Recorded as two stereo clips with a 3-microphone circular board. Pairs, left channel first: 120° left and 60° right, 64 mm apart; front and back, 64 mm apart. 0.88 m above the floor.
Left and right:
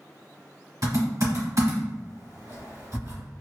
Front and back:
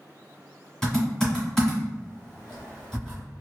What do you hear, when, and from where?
0.8 s typing on a keyboard: 80° right, 1.5 m